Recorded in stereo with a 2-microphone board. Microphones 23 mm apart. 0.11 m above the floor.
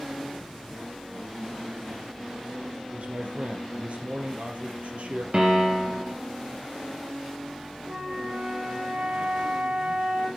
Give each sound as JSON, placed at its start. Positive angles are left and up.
{"t": 2.9, "sound": "a man speaking", "side_deg": -60, "distance_m": 2.5}
{"t": 5.3, "sound": "a piano", "side_deg": -45, "distance_m": 3.0}
{"t": 7.9, "sound": "a flute", "side_deg": -60, "distance_m": 2.5}